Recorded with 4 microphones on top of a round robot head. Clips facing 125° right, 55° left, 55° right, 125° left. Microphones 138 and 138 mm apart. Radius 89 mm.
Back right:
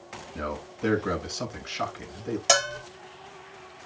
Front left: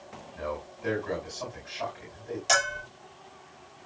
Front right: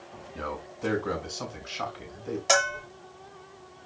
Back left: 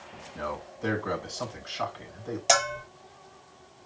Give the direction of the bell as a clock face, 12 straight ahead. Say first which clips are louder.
Back right 3 dB, back left 1 dB; 5 o'clock.